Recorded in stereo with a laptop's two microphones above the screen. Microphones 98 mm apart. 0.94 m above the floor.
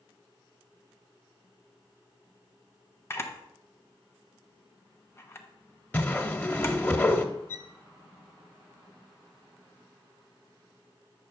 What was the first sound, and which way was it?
A camera shutter, 25° left (ahead or behind).